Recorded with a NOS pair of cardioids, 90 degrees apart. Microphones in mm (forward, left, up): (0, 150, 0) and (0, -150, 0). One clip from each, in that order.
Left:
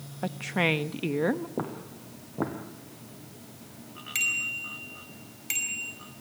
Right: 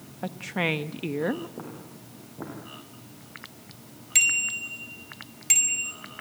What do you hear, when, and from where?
0.2 s a woman speaking: 5° left, 1.0 m
1.6 s footsteps: 60° left, 3.5 m
4.2 s a bicycle bell: 35° right, 4.5 m